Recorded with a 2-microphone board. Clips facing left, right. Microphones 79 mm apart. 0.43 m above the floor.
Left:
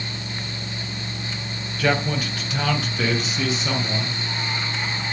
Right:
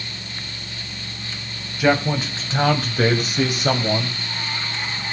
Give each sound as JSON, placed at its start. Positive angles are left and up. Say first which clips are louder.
{"t": 1.8, "sound": "a man speaking", "louder": "right 4 dB", "side_deg": -15, "distance_m": 2.5}